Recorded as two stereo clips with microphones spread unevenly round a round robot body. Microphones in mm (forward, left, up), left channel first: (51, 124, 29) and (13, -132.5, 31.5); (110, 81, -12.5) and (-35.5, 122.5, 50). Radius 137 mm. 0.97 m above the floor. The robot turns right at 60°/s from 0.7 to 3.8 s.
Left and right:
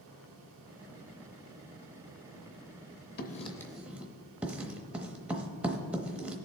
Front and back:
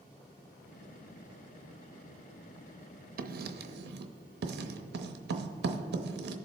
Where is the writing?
140° left, 0.7 m; by 6.3 s 175° left, 0.7 m.